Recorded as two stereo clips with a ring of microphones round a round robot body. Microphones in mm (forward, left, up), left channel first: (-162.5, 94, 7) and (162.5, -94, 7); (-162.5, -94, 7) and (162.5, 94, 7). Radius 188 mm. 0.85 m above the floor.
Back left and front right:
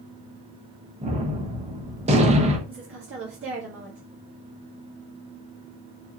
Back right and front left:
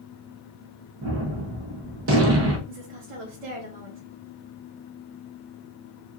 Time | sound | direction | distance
1.0 | a gunshot | 30° left | 1.0 m
2.7 | a woman speaking | 25° left | 1.3 m